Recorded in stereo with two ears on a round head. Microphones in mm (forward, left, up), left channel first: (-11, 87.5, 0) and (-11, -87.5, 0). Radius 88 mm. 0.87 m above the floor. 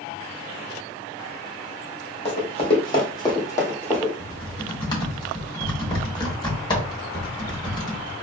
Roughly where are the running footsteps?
Left.